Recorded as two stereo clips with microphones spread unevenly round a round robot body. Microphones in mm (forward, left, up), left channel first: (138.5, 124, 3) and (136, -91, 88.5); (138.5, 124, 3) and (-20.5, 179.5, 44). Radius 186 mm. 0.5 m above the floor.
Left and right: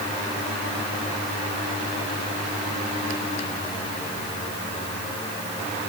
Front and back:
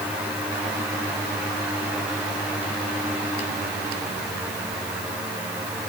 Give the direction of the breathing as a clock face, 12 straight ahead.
I don't hear breathing.